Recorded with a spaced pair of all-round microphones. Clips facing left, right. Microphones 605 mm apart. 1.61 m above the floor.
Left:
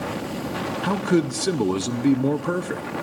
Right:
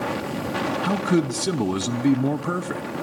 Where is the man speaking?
5° right (ahead or behind), 0.8 m.